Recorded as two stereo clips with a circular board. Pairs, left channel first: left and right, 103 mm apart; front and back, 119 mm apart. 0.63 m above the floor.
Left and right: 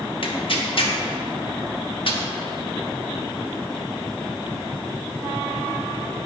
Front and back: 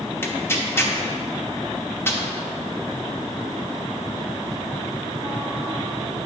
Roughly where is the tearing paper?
Ahead left.